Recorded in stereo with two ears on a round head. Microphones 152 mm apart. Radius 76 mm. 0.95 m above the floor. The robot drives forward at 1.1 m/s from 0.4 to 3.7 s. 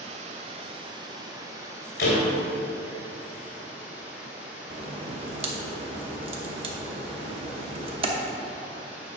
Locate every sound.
0.0 s running water: 45° right (ahead or behind), 1.1 m; by 9.2 s 10° right (ahead or behind), 4.5 m
2.0 s a door slam: 60° left (ahead or behind), 2.5 m; by 2.3 s 70° left (ahead or behind), 2 m
4.7 s a crack: 35° right (ahead or behind), 1.0 m